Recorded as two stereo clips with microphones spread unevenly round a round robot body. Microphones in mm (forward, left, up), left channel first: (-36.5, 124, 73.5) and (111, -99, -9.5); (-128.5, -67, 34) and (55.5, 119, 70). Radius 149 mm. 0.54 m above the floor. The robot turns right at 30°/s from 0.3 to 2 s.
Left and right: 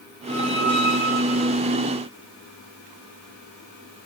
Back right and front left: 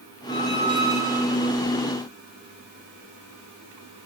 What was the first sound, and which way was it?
A squeak, 105° left.